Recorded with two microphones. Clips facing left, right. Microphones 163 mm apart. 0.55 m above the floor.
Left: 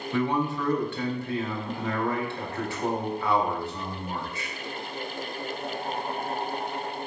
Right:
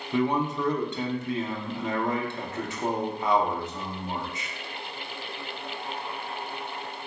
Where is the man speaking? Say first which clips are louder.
Right 1 dB; 20° right (ahead or behind), 0.6 m.